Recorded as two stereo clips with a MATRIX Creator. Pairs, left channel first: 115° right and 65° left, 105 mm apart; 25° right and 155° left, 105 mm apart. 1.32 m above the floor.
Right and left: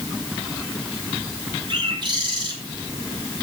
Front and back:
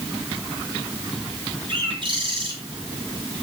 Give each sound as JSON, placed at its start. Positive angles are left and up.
{"t": 1.7, "sound": "a bird", "azimuth_deg": 115, "distance_m": 5.0}